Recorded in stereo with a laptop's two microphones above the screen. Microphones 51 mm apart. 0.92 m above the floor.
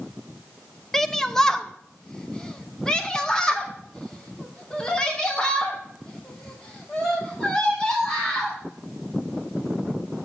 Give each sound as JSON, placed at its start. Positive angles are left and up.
{"t": 0.9, "sound": "a shout", "side_deg": 10, "distance_m": 0.7}